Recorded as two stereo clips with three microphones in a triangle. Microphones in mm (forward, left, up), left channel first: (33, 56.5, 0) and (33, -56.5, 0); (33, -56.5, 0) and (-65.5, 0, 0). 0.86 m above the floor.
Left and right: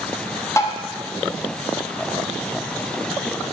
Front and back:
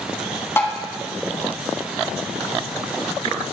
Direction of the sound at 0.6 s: 35° left.